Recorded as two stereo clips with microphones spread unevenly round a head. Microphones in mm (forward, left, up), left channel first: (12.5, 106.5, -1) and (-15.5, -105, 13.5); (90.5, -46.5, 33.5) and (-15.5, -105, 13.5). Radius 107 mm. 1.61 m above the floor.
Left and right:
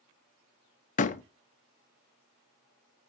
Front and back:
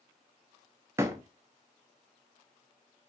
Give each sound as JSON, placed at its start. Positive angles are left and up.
{"t": 1.0, "sound": "a door slam", "azimuth_deg": 130, "distance_m": 0.5}